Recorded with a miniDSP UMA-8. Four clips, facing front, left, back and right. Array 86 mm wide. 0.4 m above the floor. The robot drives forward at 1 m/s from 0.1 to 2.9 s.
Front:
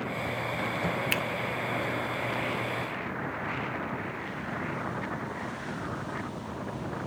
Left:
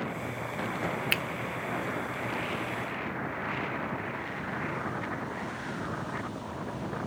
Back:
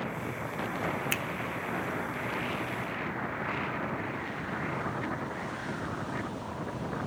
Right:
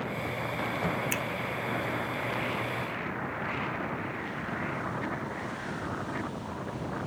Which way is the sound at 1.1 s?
60° left.